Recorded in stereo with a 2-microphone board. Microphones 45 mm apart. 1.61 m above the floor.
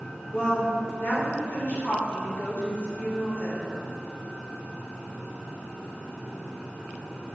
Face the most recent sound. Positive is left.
turn(degrees=45)  # may be behind; listen again after turning